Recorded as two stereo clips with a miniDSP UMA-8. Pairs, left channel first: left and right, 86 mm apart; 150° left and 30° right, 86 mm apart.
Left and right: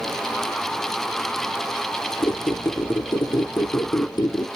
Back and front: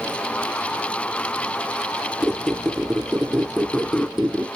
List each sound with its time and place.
2.2 s a squeak: 55° left, 0.7 m